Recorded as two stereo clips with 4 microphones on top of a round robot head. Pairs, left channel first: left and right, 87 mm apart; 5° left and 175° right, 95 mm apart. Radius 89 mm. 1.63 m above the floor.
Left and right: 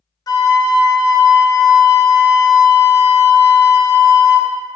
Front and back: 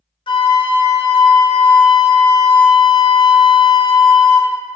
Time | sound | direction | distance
0.3 | a flute | 40° left | 0.6 m